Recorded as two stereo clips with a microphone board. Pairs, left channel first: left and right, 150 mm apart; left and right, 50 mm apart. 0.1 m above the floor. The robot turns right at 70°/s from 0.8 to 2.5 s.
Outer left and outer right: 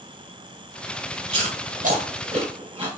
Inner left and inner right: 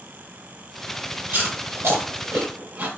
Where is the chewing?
35° right (ahead or behind), 2 m; by 2.9 s 40° right (ahead or behind), 2 m.